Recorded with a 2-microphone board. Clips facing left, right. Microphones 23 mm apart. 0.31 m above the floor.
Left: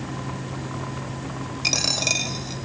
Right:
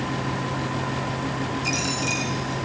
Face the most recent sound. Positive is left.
turn(degrees=55)  # may be behind; listen again after turning